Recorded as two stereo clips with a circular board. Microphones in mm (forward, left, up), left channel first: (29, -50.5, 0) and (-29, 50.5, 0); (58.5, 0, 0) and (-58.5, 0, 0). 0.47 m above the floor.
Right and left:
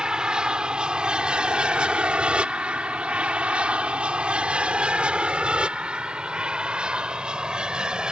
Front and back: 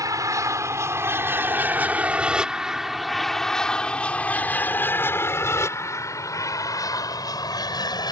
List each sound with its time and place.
0.0 s an aircraft: 165° right; by 8.1 s 40° left